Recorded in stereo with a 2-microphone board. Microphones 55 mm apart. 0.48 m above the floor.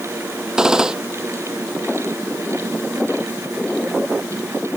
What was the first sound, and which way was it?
A gunshot, 10° right (ahead or behind).